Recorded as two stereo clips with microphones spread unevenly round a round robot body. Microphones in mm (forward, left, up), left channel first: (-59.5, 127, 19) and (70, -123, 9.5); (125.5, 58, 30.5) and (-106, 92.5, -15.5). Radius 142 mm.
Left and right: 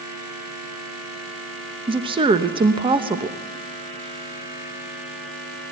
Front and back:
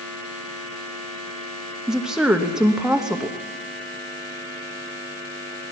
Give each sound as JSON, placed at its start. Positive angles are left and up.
{"t": 1.9, "sound": "a woman speaking", "azimuth_deg": -120, "distance_m": 1.0}